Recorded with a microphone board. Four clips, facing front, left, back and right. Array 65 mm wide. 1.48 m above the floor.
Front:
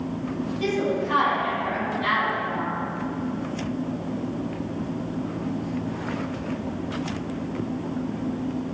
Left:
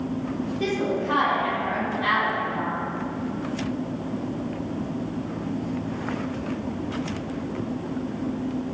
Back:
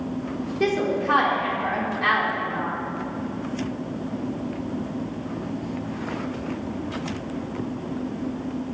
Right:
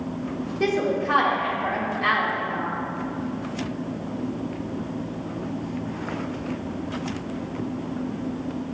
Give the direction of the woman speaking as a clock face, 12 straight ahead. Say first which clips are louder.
Right 4 dB, back 2 dB; 5 o'clock.